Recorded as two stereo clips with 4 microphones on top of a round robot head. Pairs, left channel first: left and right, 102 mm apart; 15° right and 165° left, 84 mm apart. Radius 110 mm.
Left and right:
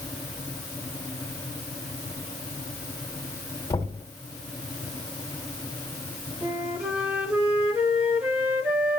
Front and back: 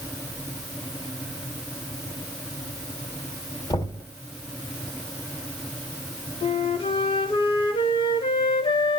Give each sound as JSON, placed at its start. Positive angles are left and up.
{"t": 3.7, "sound": "knocking", "azimuth_deg": 25, "distance_m": 3.0}
{"t": 6.4, "sound": "a flute", "azimuth_deg": -15, "distance_m": 2.0}